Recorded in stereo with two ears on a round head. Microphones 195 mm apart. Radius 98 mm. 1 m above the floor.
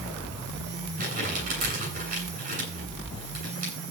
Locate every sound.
1.0 s crumpling: 40° right (ahead or behind), 9.5 m